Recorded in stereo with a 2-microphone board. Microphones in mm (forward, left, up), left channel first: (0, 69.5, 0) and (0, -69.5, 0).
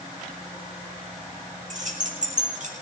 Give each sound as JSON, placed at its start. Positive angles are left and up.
{"t": 1.7, "sound": "keys jangling", "side_deg": -65, "distance_m": 4.5}